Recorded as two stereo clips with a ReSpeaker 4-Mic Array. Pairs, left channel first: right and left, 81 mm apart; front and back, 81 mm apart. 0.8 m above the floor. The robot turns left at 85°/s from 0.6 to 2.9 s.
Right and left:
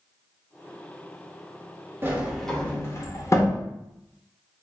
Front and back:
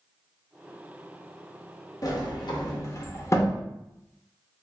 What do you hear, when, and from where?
2.0 s a sliding door: 30° left, 0.6 m; by 3.6 s 45° right, 0.6 m